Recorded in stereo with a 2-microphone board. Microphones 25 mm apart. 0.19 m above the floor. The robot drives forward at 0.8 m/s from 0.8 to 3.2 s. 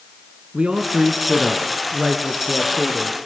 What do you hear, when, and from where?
0.5 s a man speaking: 45° right (ahead or behind), 1.9 m; by 3.3 s 25° right (ahead or behind), 3 m